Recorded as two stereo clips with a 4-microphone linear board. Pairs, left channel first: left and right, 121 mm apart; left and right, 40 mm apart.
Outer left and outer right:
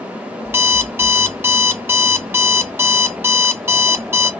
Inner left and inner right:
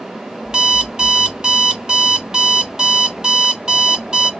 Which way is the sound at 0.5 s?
20° right (ahead or behind).